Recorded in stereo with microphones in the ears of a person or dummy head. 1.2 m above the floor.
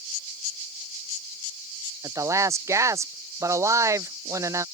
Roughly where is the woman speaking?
Centre.